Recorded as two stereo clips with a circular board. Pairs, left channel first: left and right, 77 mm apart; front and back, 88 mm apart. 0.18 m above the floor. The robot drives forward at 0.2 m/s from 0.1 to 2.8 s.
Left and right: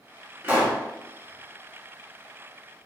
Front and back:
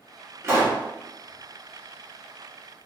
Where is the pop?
140° right, 1.0 m; by 0.8 s 145° right, 1.0 m.